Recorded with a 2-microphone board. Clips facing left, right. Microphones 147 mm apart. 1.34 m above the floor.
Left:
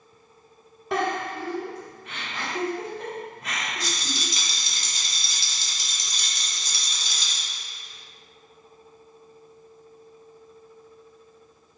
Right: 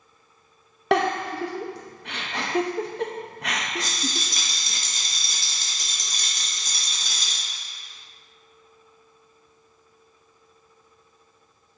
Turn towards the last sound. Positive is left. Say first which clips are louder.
# right 1 dB
turn(degrees=-50)  # may be behind; listen again after turning